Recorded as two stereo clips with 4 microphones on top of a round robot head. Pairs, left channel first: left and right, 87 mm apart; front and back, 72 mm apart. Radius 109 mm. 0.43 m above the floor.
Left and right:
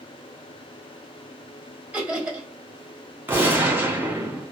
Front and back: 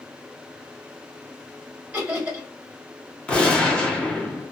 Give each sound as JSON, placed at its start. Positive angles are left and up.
{"t": 1.9, "sound": "laughter", "azimuth_deg": -140, "distance_m": 1.3}
{"t": 3.3, "sound": "a gunshot", "azimuth_deg": -55, "distance_m": 1.0}